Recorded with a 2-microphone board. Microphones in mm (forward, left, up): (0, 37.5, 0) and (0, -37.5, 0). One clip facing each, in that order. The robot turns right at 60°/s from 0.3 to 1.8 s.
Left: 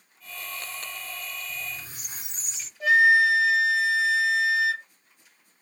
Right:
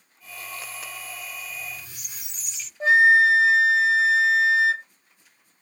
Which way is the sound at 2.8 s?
30° right (ahead or behind).